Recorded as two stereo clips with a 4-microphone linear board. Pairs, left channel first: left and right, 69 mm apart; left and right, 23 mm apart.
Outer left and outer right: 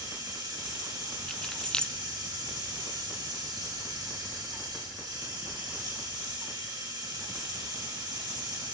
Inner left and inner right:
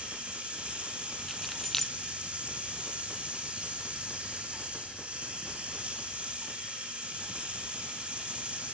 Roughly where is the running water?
Right.